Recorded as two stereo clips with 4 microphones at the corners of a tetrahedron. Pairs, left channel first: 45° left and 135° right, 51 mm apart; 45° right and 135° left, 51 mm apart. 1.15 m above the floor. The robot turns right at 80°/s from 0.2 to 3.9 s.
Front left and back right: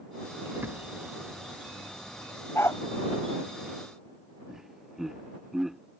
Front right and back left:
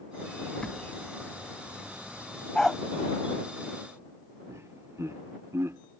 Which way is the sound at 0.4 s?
135° right.